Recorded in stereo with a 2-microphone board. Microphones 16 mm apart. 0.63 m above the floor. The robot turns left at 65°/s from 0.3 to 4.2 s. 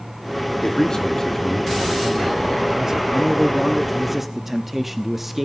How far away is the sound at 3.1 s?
About 0.8 m.